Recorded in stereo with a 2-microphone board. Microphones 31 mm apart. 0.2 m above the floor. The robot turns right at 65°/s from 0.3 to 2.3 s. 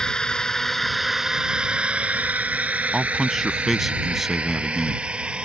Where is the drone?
20° left (ahead or behind); by 5.5 s 35° right (ahead or behind).